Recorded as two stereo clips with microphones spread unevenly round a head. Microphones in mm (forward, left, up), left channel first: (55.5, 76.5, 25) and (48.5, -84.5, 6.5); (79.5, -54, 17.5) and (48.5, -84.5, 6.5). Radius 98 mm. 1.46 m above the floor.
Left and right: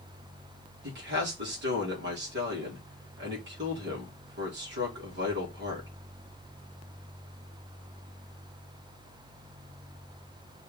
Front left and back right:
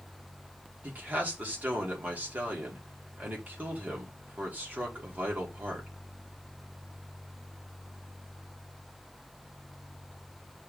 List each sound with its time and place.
0.8 s a man speaking: 85° right, 4.5 m